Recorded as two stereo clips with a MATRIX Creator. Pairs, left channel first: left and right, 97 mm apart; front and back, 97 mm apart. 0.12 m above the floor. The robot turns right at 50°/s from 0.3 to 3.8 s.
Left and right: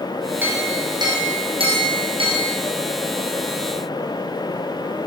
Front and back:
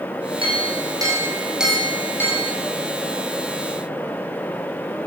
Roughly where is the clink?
Behind.